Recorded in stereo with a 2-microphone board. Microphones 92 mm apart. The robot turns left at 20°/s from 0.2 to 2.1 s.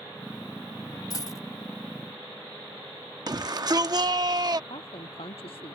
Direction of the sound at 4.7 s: 80° left.